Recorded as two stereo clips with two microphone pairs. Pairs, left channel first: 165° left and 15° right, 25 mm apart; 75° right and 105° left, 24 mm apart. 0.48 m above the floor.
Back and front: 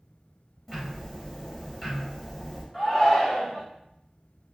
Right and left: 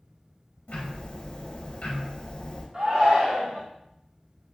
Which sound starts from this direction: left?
A shout, at 2.7 s.